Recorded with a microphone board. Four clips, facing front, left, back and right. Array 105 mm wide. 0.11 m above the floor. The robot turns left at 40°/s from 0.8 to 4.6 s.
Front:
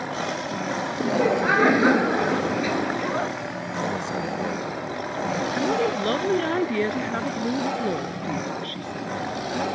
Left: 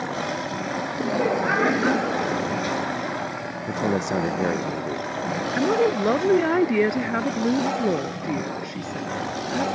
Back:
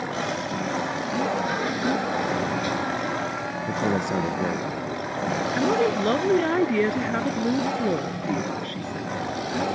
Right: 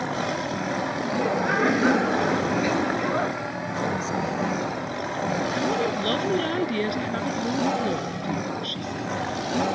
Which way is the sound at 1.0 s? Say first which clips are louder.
Left 4 dB, front 8 dB; 35° left.